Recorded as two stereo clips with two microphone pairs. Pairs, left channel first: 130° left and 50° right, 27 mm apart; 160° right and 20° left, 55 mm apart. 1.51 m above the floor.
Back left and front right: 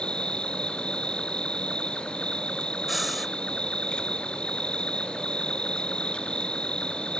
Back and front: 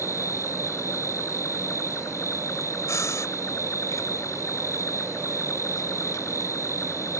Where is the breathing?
135° right.